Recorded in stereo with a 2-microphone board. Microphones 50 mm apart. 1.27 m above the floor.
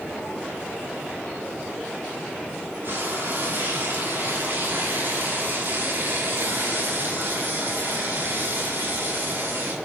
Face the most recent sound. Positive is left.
turn(degrees=-45)  # may be behind; listen again after turning